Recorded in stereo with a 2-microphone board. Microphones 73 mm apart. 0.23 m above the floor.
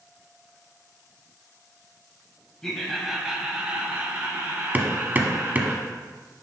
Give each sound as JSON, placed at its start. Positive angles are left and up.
{"t": 2.6, "sound": "laughter", "side_deg": 10, "distance_m": 1.0}
{"t": 4.7, "sound": "hammering", "side_deg": -25, "distance_m": 0.7}